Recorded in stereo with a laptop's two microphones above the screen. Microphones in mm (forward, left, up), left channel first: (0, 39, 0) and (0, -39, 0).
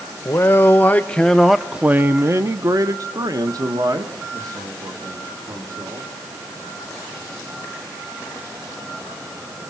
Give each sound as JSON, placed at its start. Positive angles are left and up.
{"t": 0.2, "sound": "a man speaking", "side_deg": 35, "distance_m": 1.1}